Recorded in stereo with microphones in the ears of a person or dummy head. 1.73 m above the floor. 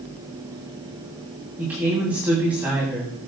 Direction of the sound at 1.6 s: 5° right (ahead or behind).